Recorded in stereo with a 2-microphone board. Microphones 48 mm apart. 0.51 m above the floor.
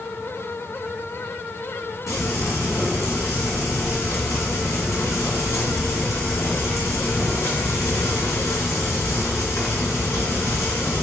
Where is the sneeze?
I don't hear a sneeze.